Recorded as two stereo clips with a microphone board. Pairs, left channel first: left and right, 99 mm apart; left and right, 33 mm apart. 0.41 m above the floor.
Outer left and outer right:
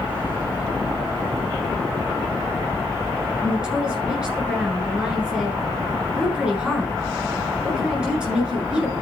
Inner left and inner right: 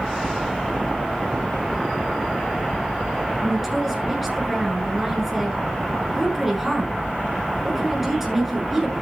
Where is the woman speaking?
10° right (ahead or behind), 7 m.